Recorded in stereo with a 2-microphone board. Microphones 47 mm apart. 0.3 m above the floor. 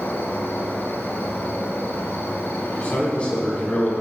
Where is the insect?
45° left (ahead or behind), 1.0 m.